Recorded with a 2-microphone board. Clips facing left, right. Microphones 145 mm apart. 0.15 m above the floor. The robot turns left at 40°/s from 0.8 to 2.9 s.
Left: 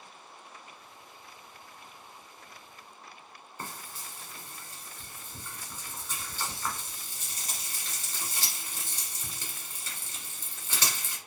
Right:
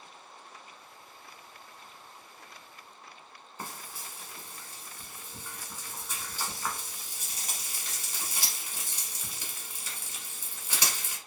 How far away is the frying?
About 1.0 m.